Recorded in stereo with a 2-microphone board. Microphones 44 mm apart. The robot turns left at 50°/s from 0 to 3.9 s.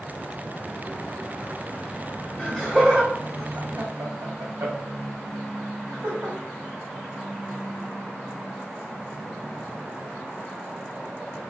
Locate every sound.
2.4 s laughter: 10° left (ahead or behind), 1.3 m; by 6.4 s 65° right (ahead or behind), 1.3 m